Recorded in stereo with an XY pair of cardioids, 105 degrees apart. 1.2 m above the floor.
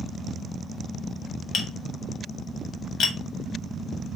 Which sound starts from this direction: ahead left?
Tapping, at 1.5 s.